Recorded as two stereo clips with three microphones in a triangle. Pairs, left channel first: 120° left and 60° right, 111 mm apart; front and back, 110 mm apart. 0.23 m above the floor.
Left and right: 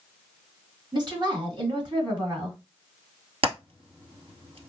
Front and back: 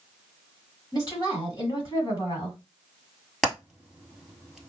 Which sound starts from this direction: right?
Hammering, at 3.4 s.